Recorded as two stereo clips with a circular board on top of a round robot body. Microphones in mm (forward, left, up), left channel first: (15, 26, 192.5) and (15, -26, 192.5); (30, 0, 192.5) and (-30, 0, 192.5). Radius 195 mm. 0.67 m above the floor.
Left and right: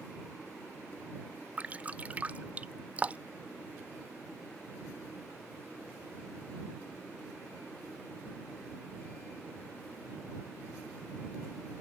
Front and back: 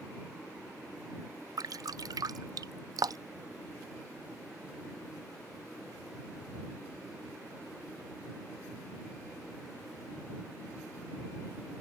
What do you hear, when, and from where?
1.6 s dripping: 155° right